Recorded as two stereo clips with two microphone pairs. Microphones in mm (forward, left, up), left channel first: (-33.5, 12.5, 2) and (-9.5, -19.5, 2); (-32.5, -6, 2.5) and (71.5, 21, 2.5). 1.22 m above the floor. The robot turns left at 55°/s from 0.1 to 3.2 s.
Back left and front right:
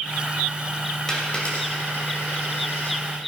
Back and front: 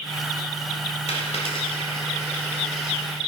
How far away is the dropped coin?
About 2.5 m.